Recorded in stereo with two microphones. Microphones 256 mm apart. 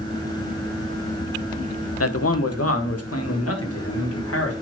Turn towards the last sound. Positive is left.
turn(degrees=65)  # may be behind; listen again after turning